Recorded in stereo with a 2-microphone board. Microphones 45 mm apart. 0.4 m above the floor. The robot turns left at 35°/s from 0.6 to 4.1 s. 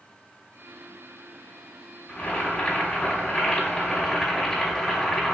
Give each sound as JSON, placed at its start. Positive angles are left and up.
{"t": 2.1, "sound": "boiling", "side_deg": 20, "distance_m": 1.5}